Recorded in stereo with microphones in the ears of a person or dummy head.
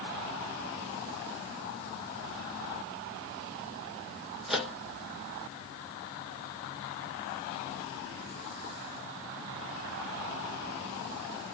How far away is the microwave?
About 0.6 m.